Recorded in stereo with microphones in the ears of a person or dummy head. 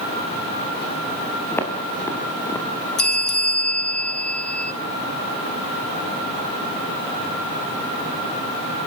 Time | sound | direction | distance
1.5 | footsteps | 15° left (ahead or behind) | 6.5 m
3.0 | a bell | 10° left (ahead or behind) | 1.2 m